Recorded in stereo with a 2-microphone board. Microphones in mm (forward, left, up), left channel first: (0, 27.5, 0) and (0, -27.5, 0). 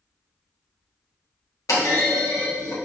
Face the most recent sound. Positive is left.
turn(degrees=80)